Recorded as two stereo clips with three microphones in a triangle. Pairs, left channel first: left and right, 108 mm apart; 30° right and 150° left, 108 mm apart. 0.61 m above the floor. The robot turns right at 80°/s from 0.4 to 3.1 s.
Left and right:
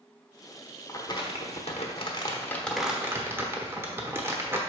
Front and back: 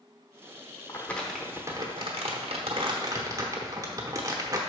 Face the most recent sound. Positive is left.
turn(degrees=-155)